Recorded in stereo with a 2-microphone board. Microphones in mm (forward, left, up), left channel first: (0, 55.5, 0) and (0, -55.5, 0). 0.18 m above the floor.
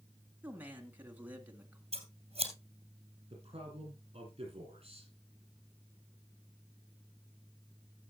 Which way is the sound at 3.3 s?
60° right (ahead or behind).